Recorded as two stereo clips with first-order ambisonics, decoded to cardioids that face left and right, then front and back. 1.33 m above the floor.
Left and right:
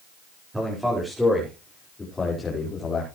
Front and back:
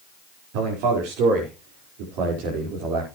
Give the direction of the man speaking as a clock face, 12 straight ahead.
6 o'clock.